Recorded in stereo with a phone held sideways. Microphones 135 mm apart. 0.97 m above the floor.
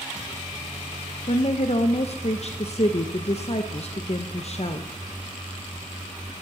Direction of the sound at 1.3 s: 50° left (ahead or behind).